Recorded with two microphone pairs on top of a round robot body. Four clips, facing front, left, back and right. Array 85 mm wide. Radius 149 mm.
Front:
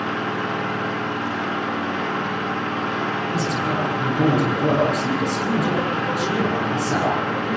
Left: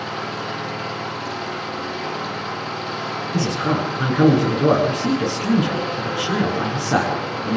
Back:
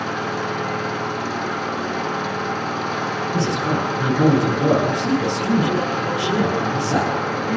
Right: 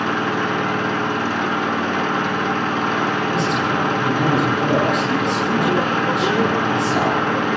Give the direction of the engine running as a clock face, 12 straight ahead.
3 o'clock.